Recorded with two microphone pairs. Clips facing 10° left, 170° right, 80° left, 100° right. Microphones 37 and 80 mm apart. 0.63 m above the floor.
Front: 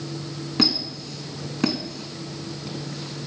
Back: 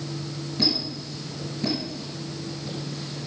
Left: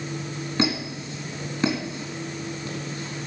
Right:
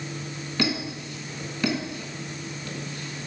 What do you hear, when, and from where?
0.6 s a squeak: 15° left, 2.5 m